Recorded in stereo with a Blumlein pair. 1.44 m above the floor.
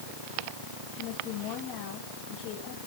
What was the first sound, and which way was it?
A woman speaking, 35° left.